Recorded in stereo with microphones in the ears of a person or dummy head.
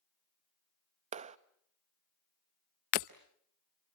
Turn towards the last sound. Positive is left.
turn(degrees=40)  # may be behind; listen again after turning